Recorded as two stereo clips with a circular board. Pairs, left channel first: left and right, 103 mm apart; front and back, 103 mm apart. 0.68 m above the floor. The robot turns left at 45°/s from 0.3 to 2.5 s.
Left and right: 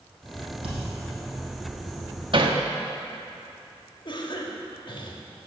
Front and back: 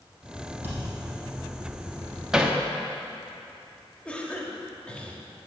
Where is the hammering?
100° right, 0.8 m; by 2.6 s 105° right, 0.8 m.